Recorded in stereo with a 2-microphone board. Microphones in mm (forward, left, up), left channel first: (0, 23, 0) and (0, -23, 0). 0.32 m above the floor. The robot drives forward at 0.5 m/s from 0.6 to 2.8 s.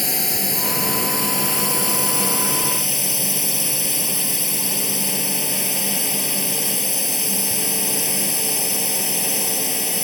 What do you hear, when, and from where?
0.0 s a drone: centre (ahead or behind)